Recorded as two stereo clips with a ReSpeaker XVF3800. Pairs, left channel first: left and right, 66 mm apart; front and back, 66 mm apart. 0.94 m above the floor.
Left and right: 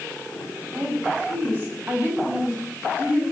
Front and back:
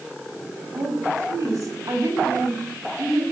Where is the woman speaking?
140° right, 6.5 m; by 3.2 s 155° right, 7.5 m.